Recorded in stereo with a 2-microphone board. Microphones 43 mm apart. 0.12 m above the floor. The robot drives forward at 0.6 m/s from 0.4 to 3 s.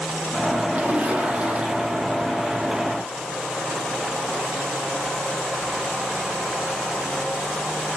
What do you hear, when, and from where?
0.7 s a splash: 35° right (ahead or behind), 3 m; by 2.1 s 30° right (ahead or behind), 3.5 m